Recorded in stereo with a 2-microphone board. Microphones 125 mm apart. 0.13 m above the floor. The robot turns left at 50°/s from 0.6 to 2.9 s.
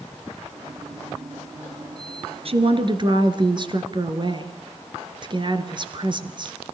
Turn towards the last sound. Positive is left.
turn(degrees=-40)  # may be behind; listen again after turning